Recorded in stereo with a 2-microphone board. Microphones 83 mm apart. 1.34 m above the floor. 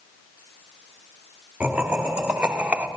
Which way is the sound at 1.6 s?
10° right (ahead or behind).